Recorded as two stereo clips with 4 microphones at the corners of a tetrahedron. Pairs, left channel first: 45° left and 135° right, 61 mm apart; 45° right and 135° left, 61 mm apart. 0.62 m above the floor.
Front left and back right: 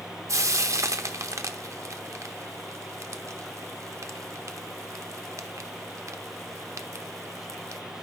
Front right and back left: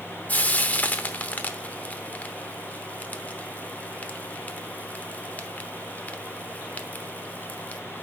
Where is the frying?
105° right, 0.9 m.